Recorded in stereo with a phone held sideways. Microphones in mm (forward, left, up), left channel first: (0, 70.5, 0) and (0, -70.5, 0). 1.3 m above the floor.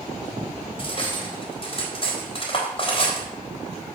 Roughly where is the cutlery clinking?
Left.